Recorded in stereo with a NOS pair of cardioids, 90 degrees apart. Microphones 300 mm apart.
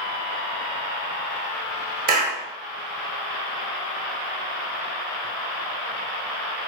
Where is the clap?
30° right, 0.7 m.